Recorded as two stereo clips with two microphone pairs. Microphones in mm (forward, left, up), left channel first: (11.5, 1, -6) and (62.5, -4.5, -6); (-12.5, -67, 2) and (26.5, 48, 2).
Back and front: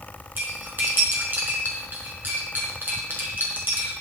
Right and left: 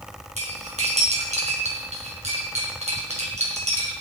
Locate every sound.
0.4 s cutlery clinking: 45° left, 4.5 m